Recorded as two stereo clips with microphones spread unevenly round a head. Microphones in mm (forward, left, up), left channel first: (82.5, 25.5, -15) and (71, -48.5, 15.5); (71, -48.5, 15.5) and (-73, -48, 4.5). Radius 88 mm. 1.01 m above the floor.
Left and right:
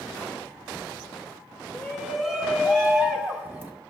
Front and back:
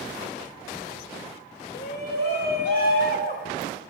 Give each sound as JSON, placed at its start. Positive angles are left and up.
{"t": 1.7, "sound": "a shout", "azimuth_deg": -10, "distance_m": 3.0}